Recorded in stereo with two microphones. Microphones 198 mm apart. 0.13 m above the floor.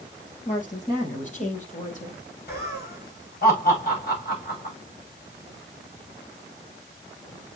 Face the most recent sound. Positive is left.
turn(degrees=50)  # may be behind; listen again after turning